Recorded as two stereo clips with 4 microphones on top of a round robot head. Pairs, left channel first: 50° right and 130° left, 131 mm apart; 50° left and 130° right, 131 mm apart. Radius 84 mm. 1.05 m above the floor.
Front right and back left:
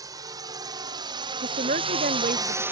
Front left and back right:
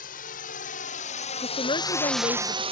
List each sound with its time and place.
0.0 s a drone: 65° left; by 2.7 s 155° right
1.4 s a woman speaking: 105° left